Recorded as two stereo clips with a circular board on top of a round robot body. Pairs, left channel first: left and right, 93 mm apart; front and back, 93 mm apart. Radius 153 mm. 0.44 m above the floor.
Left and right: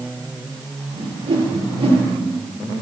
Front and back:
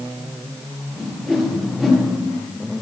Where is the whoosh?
90° right, 6.5 m.